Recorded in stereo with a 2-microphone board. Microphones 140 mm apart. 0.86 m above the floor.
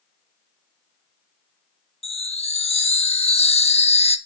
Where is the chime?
45° left (ahead or behind), 0.9 m.